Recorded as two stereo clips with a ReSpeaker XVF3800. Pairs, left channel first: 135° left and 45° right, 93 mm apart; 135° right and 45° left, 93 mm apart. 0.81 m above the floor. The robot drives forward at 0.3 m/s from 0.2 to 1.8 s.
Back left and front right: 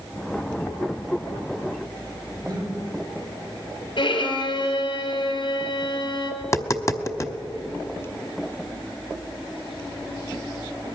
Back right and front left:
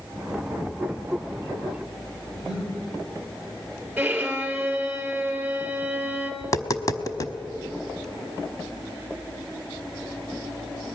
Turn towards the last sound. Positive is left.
turn(degrees=-175)